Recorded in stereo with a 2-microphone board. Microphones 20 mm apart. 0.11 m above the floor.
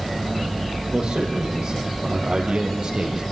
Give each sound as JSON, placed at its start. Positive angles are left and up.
{"t": 0.9, "sound": "a man speaking", "side_deg": -55, "distance_m": 5.0}